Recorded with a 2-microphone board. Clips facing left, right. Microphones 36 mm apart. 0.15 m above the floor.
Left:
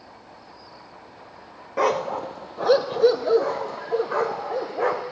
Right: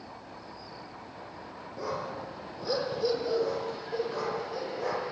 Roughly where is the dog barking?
Left.